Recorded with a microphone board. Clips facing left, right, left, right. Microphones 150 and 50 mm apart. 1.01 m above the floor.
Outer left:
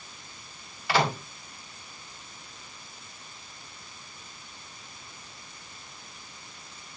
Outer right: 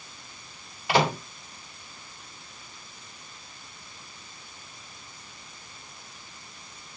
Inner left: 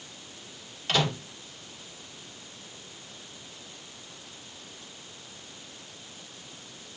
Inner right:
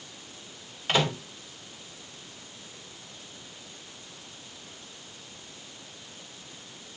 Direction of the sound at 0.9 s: 20° right (ahead or behind).